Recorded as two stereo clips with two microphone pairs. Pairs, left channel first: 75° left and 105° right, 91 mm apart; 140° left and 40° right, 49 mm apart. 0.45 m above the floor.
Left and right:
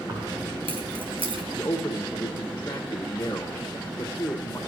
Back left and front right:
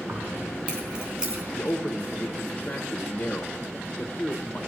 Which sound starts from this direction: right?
Keys jangling, at 0.1 s.